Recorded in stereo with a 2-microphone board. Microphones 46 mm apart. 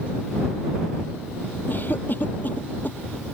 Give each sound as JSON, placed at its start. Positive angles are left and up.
{"t": 1.7, "sound": "a cough", "side_deg": 40}